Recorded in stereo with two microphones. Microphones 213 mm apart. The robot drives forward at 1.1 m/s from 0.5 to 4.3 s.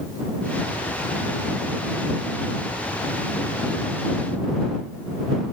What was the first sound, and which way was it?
Only background noise.